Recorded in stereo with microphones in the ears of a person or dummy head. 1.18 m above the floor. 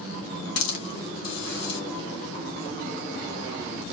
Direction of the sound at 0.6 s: 70° left (ahead or behind).